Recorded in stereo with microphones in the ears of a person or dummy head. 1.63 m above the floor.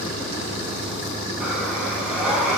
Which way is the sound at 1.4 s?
5° right (ahead or behind).